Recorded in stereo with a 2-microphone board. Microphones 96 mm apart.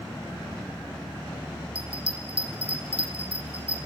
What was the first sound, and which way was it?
A bell, 75° right (ahead or behind).